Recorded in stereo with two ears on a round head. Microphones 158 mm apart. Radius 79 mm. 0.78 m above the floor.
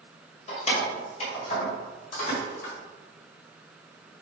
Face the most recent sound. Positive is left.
turn(degrees=40)  # may be behind; listen again after turning